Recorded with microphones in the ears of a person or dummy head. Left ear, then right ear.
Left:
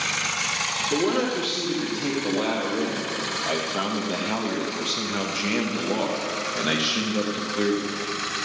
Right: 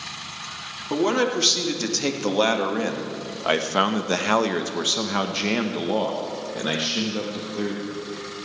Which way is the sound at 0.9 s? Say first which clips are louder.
Right 6 dB; 80° right.